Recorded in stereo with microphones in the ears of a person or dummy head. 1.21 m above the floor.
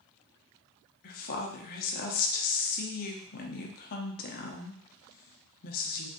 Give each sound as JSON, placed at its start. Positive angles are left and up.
{"t": 1.0, "sound": "a woman speaking", "side_deg": 45, "distance_m": 0.7}